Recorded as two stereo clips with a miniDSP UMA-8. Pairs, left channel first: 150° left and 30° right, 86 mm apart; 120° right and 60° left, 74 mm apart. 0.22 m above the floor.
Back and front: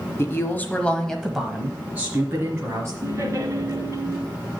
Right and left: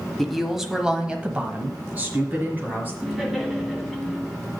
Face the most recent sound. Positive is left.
turn(degrees=-25)